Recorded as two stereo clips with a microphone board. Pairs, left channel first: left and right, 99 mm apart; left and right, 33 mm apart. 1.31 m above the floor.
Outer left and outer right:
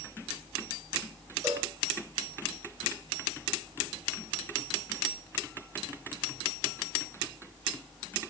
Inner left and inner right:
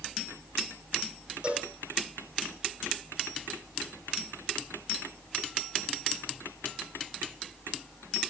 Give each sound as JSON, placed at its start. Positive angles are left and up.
{"t": 1.4, "sound": "a cowbell", "side_deg": -30, "distance_m": 3.5}